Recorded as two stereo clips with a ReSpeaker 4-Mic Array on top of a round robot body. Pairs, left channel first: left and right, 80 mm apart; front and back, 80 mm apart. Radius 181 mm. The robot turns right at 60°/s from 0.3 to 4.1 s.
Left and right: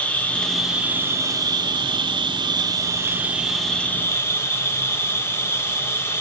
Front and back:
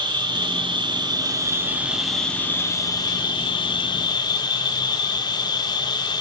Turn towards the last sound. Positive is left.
turn(degrees=30)